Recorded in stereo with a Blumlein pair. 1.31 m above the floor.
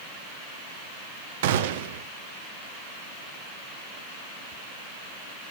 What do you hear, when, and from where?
1.4 s a gunshot: 55° right, 0.9 m